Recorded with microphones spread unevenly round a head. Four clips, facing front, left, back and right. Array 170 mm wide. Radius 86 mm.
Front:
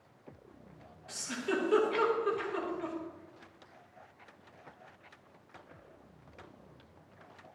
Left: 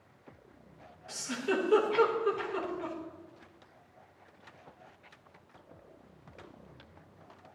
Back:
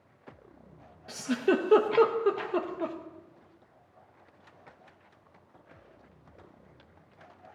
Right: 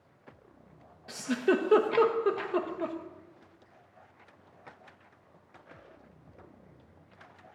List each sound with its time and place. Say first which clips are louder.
1.1 s a giggle: right 6 dB, back 9 dB; 145° right, 0.9 m